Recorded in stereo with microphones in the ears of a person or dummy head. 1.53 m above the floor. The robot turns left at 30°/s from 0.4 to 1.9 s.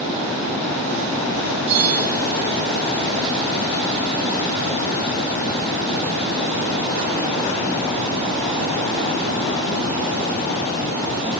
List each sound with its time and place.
1.7 s a bell: 60° right (ahead or behind), 0.8 m; by 2.2 s 55° right (ahead or behind), 0.8 m